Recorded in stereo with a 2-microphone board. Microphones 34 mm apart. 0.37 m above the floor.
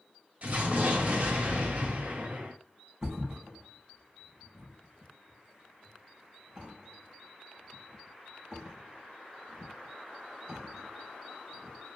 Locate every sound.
0.4 s an explosion: 45° right (ahead or behind), 1.5 m
3.0 s a thud: 25° right (ahead or behind), 2 m